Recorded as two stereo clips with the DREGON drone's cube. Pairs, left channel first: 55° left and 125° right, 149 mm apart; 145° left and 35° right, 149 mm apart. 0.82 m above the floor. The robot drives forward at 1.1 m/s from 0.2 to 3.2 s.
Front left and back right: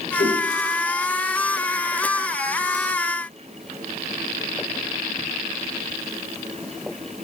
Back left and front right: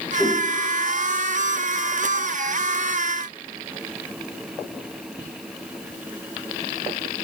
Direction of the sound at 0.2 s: 60° left.